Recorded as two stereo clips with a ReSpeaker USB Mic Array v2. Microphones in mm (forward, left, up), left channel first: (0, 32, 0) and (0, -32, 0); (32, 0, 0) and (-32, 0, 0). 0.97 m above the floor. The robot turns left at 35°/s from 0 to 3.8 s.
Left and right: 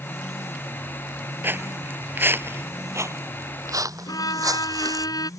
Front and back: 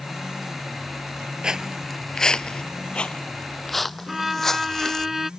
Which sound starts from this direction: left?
A violin, at 4.1 s.